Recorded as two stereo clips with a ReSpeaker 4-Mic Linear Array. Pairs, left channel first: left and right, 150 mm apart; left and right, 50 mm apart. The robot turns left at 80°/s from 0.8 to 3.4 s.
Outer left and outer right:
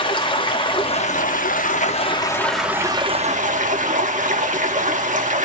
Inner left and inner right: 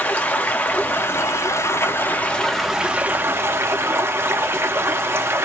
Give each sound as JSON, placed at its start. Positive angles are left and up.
{"t": 0.0, "sound": "running water", "azimuth_deg": 145, "distance_m": 0.8}